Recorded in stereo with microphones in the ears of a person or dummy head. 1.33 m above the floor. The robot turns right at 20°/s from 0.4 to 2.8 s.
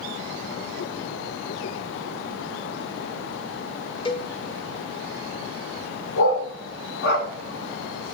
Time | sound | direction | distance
4.0 | a cowbell | 30° left (ahead or behind) | 0.8 m
6.2 | a dog barking | 60° left (ahead or behind) | 1.5 m